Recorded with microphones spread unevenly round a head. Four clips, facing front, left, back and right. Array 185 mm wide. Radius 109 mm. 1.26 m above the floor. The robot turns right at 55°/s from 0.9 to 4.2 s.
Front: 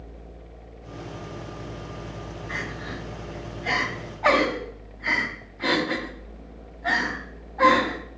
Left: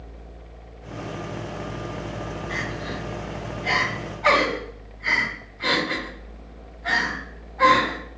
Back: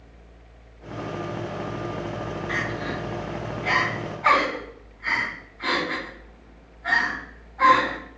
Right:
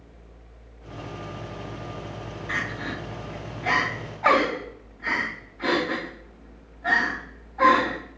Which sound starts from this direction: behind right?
Crying, at 2.5 s.